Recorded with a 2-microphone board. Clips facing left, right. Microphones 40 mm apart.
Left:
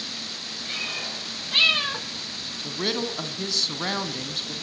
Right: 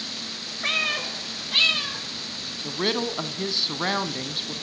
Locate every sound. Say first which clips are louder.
0.6 s a cat meowing: right 7 dB; 65° right (ahead or behind), 1.5 m; by 2.1 s 35° left (ahead or behind), 1.4 m
2.6 s a woman speaking: right 2 dB; 15° right (ahead or behind), 1.3 m